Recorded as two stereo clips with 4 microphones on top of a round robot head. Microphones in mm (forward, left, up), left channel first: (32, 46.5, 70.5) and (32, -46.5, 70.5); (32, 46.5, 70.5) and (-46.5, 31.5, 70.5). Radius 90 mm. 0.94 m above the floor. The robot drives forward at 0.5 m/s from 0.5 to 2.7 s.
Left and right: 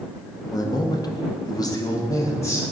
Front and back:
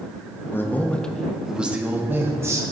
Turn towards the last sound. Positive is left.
turn(degrees=145)